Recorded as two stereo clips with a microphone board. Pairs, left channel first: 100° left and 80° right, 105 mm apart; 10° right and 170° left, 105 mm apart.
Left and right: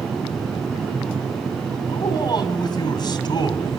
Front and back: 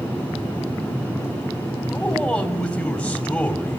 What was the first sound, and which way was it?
A man speaking, 65° left.